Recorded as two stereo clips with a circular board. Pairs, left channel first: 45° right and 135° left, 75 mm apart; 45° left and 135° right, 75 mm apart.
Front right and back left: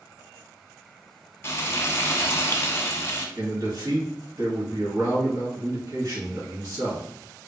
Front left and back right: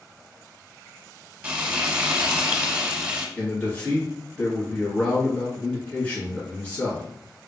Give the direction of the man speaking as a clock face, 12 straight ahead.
8 o'clock.